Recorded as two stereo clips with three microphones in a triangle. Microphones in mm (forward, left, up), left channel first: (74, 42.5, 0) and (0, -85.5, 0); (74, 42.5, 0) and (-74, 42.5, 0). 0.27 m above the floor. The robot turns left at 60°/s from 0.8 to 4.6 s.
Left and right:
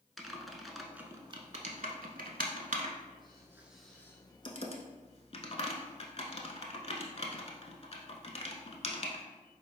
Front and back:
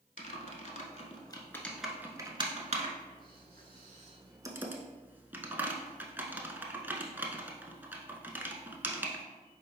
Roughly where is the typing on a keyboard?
Ahead right.